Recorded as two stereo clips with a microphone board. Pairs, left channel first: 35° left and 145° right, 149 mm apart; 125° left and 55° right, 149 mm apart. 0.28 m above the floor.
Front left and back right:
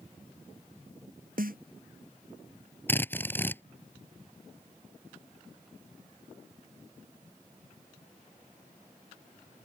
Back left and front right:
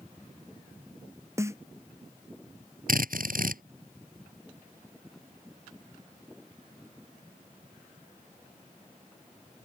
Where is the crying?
I don't hear crying.